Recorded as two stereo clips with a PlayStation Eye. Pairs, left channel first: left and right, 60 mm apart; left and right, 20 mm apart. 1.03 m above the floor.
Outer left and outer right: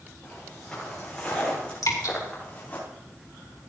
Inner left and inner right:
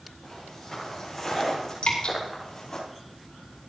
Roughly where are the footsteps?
Centre.